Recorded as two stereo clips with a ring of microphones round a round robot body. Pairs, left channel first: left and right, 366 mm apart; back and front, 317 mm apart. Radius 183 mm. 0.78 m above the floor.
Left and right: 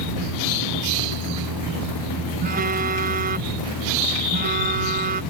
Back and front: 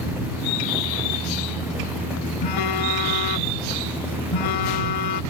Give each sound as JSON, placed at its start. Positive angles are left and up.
{"t": 2.4, "sound": "a phone buzzing", "azimuth_deg": -155}